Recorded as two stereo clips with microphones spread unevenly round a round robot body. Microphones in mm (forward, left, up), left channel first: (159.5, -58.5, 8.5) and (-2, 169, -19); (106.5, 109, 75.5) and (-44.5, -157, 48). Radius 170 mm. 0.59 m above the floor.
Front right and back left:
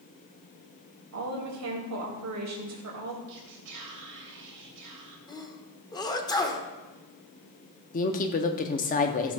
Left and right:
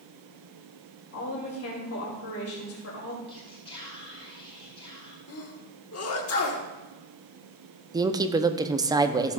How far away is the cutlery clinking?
No cutlery clinking in this recording.